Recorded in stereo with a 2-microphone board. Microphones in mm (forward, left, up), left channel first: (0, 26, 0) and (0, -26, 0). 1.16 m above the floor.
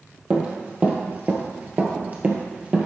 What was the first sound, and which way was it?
Running footsteps, 25° right (ahead or behind).